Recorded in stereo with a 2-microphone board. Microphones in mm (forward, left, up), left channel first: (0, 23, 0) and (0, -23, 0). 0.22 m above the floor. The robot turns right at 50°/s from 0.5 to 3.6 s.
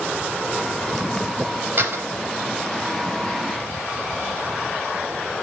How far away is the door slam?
About 3.5 m.